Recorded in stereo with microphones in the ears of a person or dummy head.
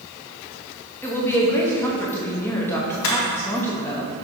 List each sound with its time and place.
1.0 s a woman speaking: 10° left (ahead or behind), 0.8 m
3.0 s a camera shutter: 85° left, 1.3 m